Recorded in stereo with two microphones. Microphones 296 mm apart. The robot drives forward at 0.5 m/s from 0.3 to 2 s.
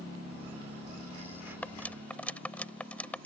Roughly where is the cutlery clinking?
Centre.